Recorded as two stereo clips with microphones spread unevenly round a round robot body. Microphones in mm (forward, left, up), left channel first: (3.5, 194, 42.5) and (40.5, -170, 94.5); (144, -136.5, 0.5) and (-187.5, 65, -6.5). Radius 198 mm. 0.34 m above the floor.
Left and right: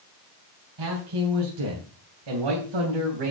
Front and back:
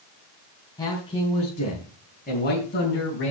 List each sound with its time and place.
0.8 s a man speaking: 110° right, 3.5 m; by 3.3 s 90° right, 3.5 m